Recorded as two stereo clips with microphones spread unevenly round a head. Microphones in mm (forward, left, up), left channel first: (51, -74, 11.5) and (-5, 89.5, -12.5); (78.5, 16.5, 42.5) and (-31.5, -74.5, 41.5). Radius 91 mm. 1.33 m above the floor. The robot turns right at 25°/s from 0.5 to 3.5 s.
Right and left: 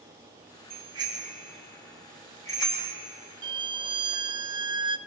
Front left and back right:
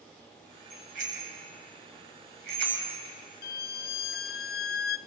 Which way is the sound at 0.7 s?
170° left.